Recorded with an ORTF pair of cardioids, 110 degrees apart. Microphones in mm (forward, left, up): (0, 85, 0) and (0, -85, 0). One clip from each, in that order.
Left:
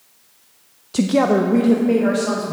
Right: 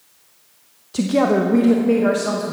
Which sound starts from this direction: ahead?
A woman speaking, at 0.9 s.